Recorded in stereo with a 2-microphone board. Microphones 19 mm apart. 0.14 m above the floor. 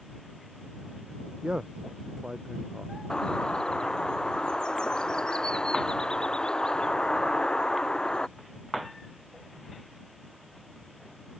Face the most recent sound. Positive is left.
turn(degrees=40)  # may be behind; listen again after turning